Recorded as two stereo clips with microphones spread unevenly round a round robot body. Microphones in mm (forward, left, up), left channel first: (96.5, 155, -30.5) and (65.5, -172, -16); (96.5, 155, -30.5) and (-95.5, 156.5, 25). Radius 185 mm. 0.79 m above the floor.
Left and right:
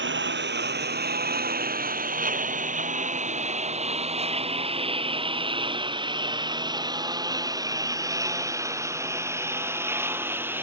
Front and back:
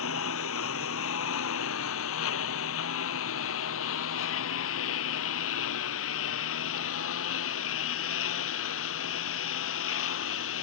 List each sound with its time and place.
0.0 s a lawn mower: 40° right; by 10.6 s 10° right